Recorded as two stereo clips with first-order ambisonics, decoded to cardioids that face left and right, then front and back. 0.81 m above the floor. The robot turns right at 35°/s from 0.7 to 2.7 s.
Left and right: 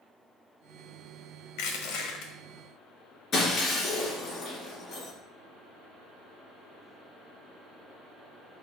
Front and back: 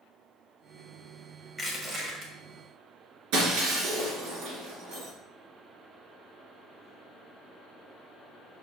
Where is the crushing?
105° left, 1.7 m; by 2.3 s 130° left, 1.7 m.